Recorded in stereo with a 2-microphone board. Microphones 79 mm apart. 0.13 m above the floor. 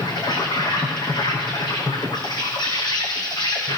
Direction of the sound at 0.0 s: 65° left (ahead or behind).